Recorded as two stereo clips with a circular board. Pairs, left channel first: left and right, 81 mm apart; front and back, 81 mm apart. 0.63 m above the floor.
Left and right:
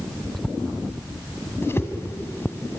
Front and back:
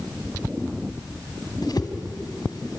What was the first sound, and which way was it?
A whoosh, 30° left.